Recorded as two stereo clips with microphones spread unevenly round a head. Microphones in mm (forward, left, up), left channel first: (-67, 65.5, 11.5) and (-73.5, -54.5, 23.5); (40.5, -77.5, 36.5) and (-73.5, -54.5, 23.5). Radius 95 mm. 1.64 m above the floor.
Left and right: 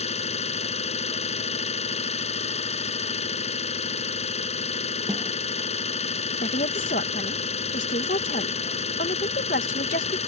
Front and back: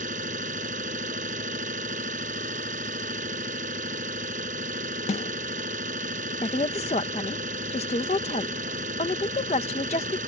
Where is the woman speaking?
45° left.